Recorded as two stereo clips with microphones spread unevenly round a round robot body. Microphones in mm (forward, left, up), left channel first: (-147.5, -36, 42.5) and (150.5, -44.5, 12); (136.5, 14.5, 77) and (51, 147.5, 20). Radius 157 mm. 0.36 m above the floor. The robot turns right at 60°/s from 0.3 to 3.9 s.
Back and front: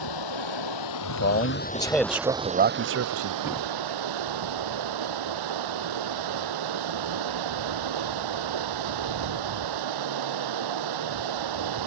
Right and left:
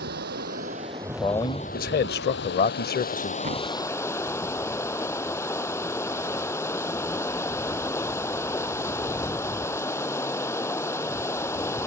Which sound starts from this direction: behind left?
Running water, at 0.0 s.